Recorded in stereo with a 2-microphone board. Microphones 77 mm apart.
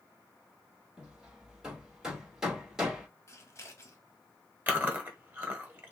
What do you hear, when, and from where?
1.0 s hammering: 10° right (ahead or behind), 2 m
3.3 s scissors: 35° left (ahead or behind), 1.2 m
4.7 s chewing: 20° right (ahead or behind), 1.3 m